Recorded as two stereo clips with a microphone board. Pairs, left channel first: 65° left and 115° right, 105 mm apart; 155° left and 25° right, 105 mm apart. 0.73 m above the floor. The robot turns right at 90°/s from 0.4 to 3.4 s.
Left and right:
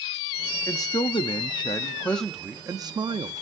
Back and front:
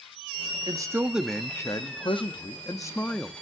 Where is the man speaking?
15° left, 0.7 m; by 3.4 s 100° right, 0.7 m.